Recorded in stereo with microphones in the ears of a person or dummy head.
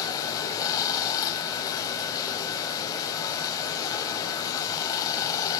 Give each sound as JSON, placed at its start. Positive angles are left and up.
{"t": 0.0, "sound": "running water", "side_deg": 25, "distance_m": 4.5}